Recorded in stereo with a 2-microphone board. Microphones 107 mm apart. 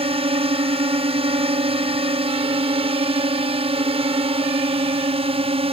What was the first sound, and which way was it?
A drone, 65° right (ahead or behind).